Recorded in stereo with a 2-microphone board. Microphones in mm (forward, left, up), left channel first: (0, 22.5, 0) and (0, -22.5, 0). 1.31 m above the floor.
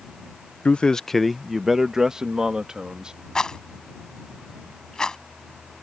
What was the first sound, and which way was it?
A man speaking, 30° left (ahead or behind).